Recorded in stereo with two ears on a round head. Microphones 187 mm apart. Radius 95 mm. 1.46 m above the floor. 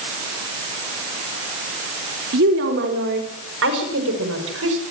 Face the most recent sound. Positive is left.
turn(degrees=-75)  # may be behind; listen again after turning